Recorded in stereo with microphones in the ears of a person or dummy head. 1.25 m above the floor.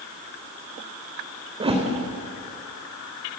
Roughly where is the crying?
No crying in this recording.